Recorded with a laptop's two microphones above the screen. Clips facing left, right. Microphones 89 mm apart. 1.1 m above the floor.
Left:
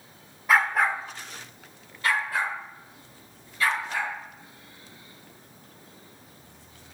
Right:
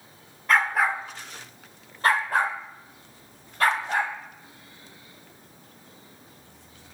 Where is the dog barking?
10° left (ahead or behind), 0.8 m; by 4.1 s 55° right (ahead or behind), 2.0 m.